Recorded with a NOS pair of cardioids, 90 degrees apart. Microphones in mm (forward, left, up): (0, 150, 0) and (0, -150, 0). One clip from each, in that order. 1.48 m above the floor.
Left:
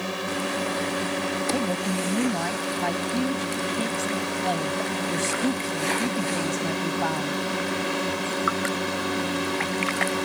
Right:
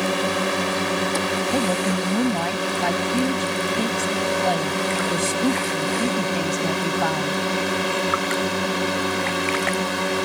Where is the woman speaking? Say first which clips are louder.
Right 5 dB; 25° right.